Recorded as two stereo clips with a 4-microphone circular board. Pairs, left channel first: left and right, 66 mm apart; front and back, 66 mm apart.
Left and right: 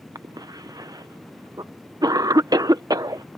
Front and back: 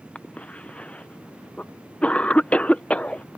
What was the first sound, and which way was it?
A cough, 70° right.